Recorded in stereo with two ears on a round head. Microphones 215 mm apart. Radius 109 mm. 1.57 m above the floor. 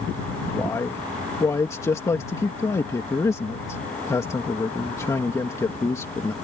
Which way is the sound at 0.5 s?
15° left (ahead or behind).